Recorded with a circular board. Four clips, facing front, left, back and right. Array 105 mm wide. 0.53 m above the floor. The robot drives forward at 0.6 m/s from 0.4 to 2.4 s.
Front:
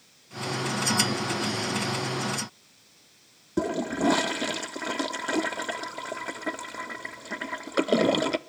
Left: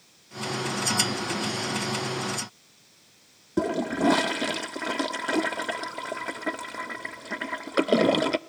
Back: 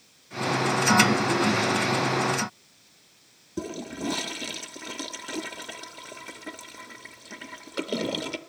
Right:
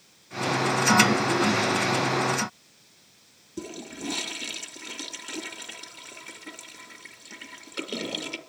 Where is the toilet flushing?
55° left, 0.7 m.